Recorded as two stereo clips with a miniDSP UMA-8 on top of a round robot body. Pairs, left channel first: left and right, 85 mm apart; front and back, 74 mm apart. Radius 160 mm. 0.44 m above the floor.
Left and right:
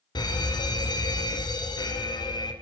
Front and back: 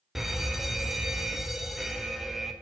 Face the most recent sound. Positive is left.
turn(degrees=95)